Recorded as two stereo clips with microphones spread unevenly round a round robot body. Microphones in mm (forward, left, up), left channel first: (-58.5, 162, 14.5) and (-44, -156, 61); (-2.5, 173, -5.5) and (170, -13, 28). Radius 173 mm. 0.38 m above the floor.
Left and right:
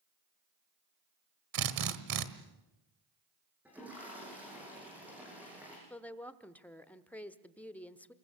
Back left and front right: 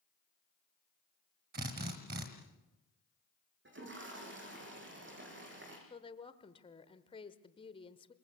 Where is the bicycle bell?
No bicycle bell in this recording.